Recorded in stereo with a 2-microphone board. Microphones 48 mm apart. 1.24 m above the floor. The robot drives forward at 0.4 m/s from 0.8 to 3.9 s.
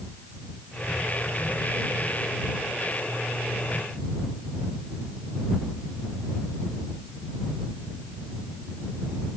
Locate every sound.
Only background noise.